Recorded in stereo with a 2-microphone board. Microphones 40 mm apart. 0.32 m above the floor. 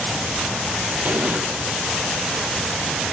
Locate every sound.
1.1 s an explosion: 55° right (ahead or behind), 3 m